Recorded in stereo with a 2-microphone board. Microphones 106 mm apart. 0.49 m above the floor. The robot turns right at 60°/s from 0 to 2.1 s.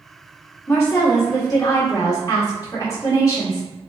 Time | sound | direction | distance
0.7 | a woman speaking | 35° left | 1.4 m